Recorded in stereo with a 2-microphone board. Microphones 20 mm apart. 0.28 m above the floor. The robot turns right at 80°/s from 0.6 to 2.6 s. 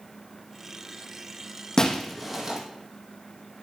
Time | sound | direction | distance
1.8 | breaking glass | 30° left (ahead or behind) | 1.7 m